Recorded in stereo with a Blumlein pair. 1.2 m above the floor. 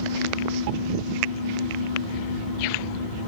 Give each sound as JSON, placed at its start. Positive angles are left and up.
{"t": 0.0, "sound": "a fan", "azimuth_deg": 55, "distance_m": 1.0}